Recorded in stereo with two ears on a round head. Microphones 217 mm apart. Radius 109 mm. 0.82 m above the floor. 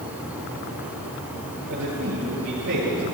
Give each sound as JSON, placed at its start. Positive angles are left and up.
{"t": 1.7, "sound": "a man speaking", "side_deg": -75, "distance_m": 9.5}